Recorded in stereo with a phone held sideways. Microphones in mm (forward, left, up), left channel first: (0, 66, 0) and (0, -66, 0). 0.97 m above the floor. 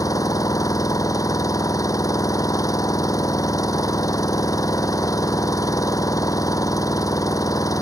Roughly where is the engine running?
Left.